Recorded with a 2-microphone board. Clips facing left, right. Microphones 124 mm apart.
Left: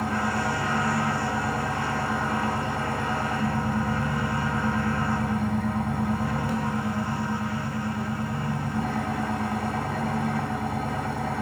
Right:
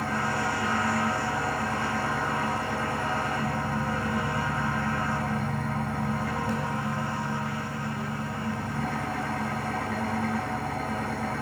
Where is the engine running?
15° left (ahead or behind), 3 m.